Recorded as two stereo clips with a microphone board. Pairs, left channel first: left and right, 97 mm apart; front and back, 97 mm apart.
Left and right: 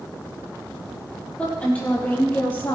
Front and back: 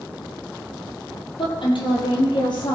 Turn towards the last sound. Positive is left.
turn(degrees=25)